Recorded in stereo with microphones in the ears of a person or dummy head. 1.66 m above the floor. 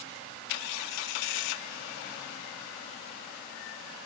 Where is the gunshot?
I don't hear a gunshot.